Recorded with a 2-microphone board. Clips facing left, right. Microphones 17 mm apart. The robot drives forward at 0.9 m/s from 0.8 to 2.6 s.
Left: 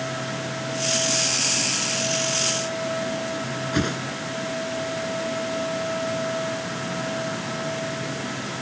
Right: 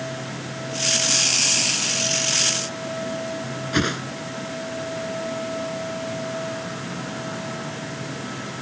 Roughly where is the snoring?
No snoring in this recording.